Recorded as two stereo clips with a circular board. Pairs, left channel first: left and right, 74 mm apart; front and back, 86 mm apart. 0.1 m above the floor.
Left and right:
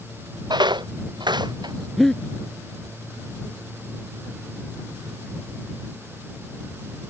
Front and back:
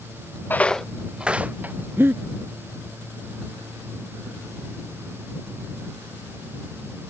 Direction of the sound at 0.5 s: 70° right.